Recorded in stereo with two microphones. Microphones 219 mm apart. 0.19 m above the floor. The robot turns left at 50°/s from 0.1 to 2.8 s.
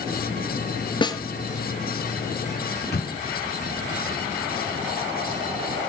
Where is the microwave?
45° left (ahead or behind), 1.7 m.